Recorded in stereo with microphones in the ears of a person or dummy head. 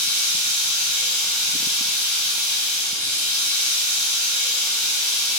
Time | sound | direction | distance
0.0 | running water | 10° left (ahead or behind) | 1.1 m